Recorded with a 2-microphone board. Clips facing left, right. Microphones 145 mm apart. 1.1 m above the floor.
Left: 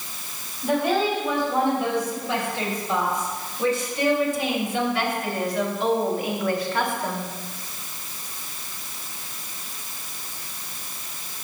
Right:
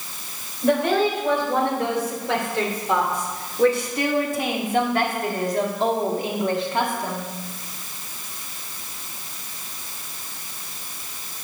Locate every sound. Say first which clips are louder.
0.6 s a woman speaking: right 3 dB; 85° right, 4 m; by 7.3 s 15° right (ahead or behind), 2 m